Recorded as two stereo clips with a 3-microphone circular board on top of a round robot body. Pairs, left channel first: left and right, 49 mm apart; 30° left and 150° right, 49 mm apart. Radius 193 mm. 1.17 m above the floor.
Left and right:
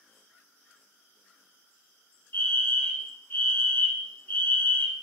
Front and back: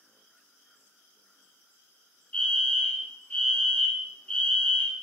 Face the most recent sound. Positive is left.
turn(degrees=85)